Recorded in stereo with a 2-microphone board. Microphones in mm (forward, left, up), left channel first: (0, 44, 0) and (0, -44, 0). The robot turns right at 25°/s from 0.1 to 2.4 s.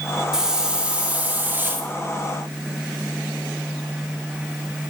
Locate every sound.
0.3 s a hiss: 165° right, 1.1 m; by 1.9 s 130° right, 1.1 m